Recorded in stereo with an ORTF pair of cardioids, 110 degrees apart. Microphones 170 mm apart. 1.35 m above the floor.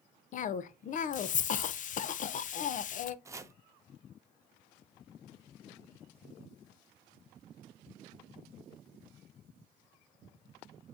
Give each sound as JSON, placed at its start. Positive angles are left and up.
{"t": 0.3, "sound": "a cough", "azimuth_deg": 45, "distance_m": 0.7}
{"t": 3.2, "sound": "chopping", "azimuth_deg": -20, "distance_m": 0.7}